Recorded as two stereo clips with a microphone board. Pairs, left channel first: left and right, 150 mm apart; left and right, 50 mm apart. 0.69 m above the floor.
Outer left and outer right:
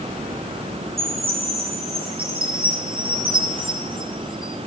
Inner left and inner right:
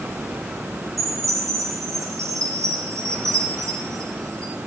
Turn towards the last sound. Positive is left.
turn(degrees=-80)